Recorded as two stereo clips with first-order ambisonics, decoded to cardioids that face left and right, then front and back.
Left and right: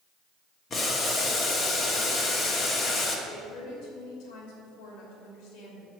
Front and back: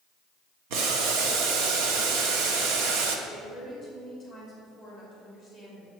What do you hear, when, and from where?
0.7 s boiling: 155° left, 1.1 m
3.3 s a woman speaking: 110° left, 3 m